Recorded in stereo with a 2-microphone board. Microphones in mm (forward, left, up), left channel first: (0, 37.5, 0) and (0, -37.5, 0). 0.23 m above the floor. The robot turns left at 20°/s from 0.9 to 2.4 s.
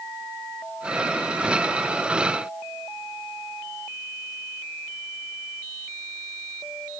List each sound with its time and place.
Only background noise.